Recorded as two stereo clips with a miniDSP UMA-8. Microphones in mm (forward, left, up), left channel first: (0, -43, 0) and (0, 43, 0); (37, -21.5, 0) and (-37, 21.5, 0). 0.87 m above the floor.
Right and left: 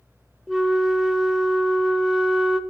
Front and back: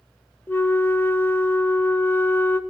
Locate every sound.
0.5 s a flute: 5° left, 0.6 m